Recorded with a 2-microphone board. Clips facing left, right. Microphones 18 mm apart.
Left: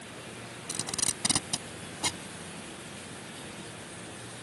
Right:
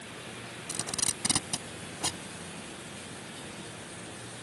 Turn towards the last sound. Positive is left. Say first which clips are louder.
# even
turn(degrees=15)  # may be behind; listen again after turning